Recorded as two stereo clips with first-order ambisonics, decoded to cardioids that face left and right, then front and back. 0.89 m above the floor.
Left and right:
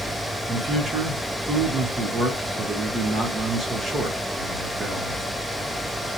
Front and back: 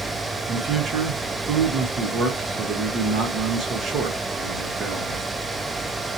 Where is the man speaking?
140° right, 1.0 m.